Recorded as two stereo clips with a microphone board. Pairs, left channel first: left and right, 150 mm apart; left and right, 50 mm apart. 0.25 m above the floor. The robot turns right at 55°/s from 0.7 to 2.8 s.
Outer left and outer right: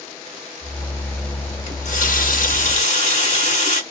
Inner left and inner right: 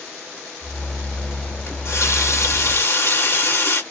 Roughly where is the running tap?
Ahead left.